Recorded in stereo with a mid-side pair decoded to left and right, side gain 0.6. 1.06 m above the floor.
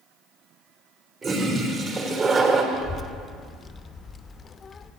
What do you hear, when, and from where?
1.2 s a toilet flushing: 35° right, 3.5 m
2.7 s a child speaking: 30° left, 1.0 m